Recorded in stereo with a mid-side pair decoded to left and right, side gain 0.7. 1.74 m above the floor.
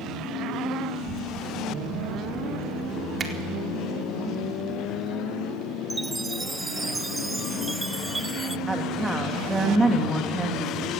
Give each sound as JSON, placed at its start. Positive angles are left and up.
{"t": 0.9, "sound": "a child speaking", "azimuth_deg": -50, "distance_m": 5.5}
{"t": 3.2, "sound": "a finger snap", "azimuth_deg": -25, "distance_m": 4.0}
{"t": 5.9, "sound": "a chime", "azimuth_deg": -15, "distance_m": 1.0}
{"t": 8.7, "sound": "a woman speaking", "azimuth_deg": -15, "distance_m": 3.0}